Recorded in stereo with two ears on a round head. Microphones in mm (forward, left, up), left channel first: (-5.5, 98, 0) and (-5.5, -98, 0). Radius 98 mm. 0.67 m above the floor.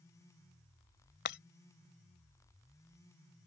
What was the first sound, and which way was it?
Breaking glass, 50° left (ahead or behind).